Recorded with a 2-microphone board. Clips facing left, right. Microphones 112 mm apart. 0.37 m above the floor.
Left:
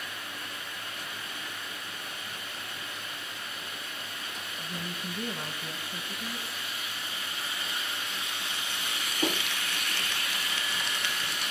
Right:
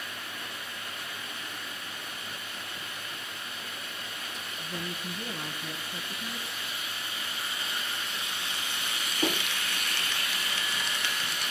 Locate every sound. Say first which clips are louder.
4.6 s a woman speaking: right 2 dB; 20° left (ahead or behind), 3 m; by 6.7 s 5° left (ahead or behind), 4.5 m